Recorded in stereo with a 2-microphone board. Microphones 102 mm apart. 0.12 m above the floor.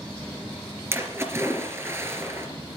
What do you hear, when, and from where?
0.9 s a splash: 25° right (ahead or behind), 2.5 m